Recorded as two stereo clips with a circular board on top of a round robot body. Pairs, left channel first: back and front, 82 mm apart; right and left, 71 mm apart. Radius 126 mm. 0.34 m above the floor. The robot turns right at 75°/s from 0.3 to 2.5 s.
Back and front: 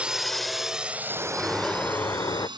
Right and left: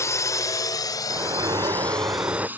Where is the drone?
70° right; by 2.6 s 25° left.